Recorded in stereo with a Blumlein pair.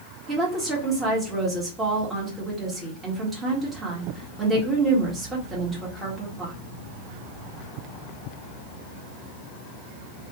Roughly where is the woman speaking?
Ahead.